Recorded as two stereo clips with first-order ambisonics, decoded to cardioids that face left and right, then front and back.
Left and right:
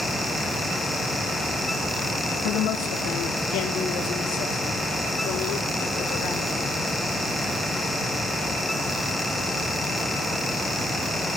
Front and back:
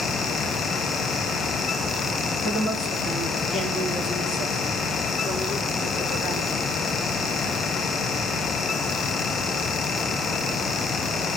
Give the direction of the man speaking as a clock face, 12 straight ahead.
9 o'clock.